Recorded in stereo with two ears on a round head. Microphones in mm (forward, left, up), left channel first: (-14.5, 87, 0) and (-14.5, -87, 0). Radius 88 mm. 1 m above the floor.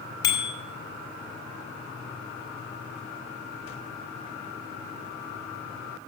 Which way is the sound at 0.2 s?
20° left (ahead or behind).